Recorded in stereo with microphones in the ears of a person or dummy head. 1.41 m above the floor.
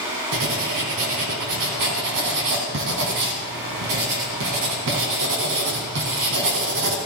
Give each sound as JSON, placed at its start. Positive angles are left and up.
{"t": 0.3, "sound": "writing", "side_deg": -55, "distance_m": 2.5}